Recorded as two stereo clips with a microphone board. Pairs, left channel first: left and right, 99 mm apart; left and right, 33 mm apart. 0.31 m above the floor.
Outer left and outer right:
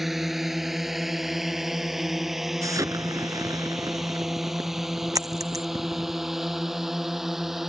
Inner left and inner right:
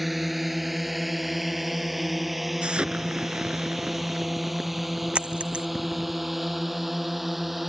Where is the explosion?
35° right (ahead or behind).